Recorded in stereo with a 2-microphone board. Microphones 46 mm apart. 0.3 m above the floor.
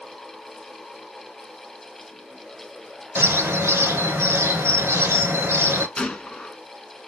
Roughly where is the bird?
Right.